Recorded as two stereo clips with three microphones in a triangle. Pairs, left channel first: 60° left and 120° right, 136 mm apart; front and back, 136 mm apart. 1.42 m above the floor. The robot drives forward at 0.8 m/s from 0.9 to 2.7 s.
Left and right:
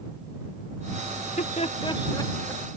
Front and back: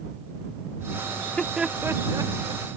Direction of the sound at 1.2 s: 75° left.